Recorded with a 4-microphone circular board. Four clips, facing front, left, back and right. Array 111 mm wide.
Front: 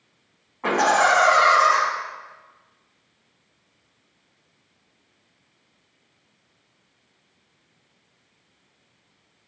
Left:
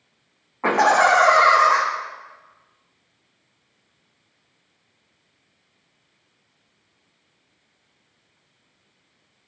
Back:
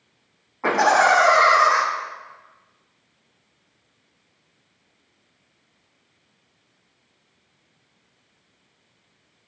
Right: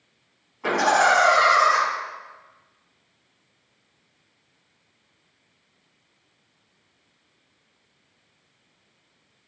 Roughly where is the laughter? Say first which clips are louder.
Left 3 dB, back 2 dB; left.